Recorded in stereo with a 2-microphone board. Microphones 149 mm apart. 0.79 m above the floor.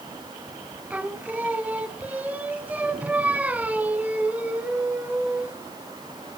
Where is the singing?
10° right (ahead or behind), 1.0 m.